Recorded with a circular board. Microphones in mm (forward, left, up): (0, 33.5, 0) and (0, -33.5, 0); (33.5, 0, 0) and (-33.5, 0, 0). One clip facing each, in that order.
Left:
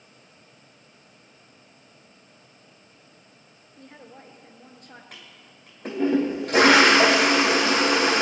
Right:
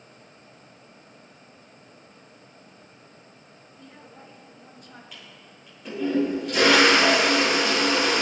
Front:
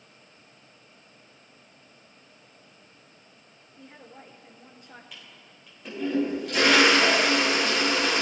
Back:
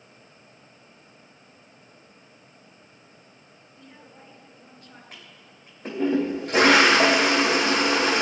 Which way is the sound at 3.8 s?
60° left.